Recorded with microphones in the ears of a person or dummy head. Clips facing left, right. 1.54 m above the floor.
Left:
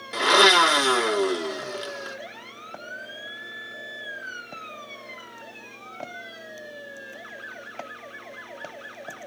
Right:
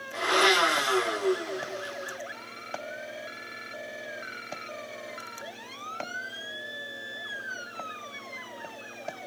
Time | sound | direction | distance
0.1 | a blender | 70° left (ahead or behind) | 1.6 m